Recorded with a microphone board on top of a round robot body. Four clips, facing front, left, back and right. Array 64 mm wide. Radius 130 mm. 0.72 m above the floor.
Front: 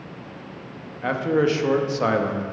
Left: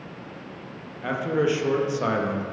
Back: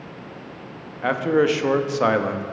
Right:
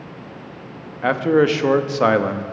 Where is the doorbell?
I don't hear a doorbell.